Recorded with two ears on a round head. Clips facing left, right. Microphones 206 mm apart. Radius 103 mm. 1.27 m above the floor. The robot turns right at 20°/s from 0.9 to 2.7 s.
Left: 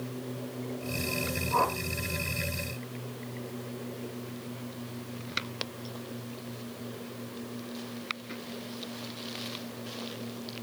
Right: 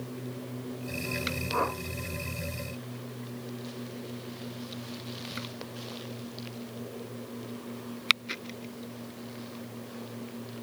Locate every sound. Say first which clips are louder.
1.5 s a whoosh: left 1 dB; 20° right (ahead or behind), 1.6 m; by 1.8 s 25° right (ahead or behind), 1.6 m